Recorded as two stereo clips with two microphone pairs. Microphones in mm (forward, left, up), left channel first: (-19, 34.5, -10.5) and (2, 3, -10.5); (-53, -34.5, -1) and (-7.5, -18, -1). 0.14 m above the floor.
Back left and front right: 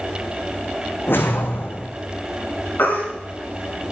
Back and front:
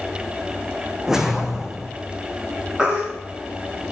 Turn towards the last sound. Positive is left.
turn(degrees=95)